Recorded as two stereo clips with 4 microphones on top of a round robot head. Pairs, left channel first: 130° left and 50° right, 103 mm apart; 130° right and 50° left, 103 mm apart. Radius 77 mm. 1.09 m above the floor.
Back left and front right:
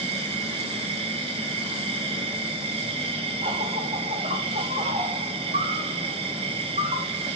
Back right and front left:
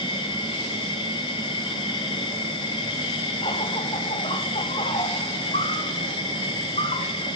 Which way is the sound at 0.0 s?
85° right.